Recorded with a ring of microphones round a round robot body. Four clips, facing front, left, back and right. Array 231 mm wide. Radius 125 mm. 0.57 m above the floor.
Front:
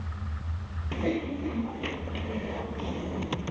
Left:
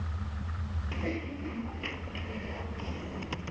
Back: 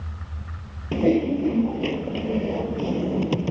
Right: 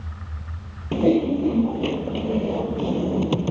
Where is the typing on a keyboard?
125° right.